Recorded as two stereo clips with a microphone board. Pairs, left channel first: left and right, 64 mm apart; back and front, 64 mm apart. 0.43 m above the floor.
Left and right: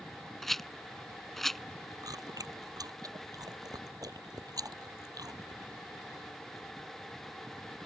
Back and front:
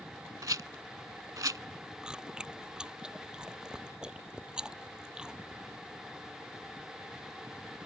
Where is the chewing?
80° right.